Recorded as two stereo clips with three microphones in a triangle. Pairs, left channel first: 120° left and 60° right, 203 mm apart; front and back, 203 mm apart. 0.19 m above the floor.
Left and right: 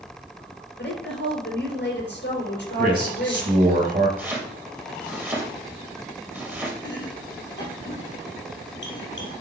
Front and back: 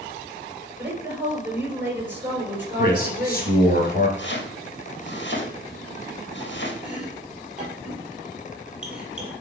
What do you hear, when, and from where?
0.8 s a woman speaking: 100° left, 3.5 m
2.8 s a man speaking: 30° right, 2.5 m
4.2 s chopping: 20° left, 3 m
6.8 s chopping: 95° left, 3 m